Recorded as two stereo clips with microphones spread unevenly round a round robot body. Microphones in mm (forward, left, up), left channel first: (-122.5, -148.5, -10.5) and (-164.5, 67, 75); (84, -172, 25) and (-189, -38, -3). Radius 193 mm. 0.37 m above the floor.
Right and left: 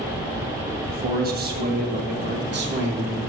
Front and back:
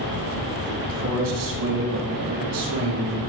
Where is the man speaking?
160° left, 3 m; by 3.2 s 145° left, 5 m.